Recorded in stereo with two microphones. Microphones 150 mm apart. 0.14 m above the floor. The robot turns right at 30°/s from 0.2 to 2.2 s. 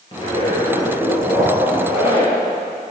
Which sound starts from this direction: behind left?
A zipper, at 0.1 s.